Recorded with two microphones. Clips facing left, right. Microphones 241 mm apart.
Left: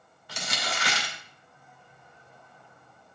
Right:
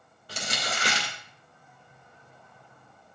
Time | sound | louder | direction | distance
0.3 | crumpling | right 1 dB | 35° right (ahead or behind) | 2.5 m